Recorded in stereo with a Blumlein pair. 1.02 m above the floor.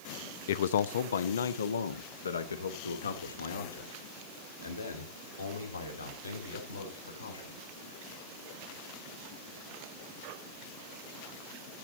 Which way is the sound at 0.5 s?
55° left.